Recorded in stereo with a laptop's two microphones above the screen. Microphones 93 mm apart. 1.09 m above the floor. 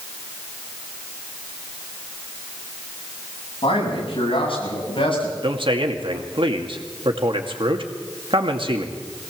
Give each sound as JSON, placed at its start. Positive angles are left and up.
{"t": 3.6, "sound": "a man speaking", "side_deg": 75, "distance_m": 7.5}
{"t": 5.4, "sound": "a man speaking", "side_deg": -70, "distance_m": 2.0}